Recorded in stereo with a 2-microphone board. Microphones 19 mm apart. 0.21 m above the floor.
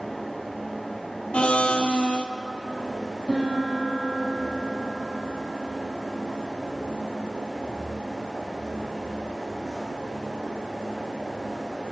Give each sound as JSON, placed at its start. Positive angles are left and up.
{"t": 1.3, "sound": "a blender", "side_deg": 65, "distance_m": 1.1}
{"t": 3.3, "sound": "a piano", "side_deg": -25, "distance_m": 6.5}